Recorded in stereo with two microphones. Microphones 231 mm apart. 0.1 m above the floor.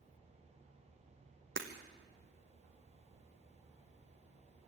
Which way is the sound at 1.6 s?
60° right (ahead or behind).